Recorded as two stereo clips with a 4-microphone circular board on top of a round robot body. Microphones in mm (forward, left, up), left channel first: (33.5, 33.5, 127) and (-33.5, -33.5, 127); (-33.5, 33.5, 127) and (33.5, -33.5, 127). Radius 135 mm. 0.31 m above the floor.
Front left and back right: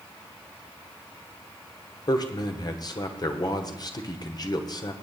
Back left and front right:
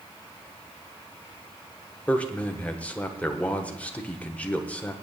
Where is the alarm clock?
I don't hear an alarm clock.